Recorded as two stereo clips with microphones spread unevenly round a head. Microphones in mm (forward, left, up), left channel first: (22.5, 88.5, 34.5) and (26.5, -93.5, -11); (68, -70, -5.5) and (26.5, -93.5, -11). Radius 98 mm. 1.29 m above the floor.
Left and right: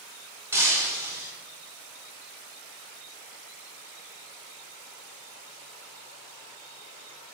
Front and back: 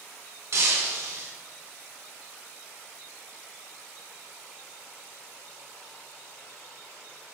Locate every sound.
0.5 s breaking glass: 175° right, 1.3 m